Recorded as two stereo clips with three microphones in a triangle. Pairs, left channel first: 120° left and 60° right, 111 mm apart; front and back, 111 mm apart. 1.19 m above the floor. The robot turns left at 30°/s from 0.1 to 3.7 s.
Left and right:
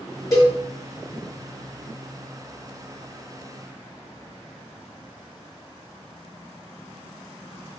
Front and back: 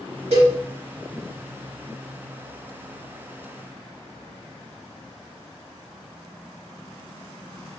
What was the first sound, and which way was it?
A cowbell, straight behind.